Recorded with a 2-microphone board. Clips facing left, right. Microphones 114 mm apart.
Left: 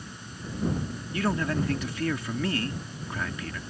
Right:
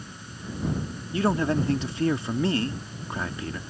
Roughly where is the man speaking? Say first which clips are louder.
Right 4 dB; right.